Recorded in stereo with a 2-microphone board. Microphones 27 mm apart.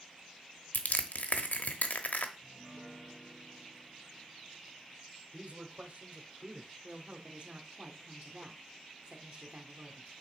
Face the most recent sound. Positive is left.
turn(degrees=-40)  # may be behind; listen again after turning